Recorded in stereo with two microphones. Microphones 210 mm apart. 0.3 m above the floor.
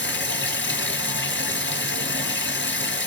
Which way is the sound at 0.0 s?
75° left (ahead or behind).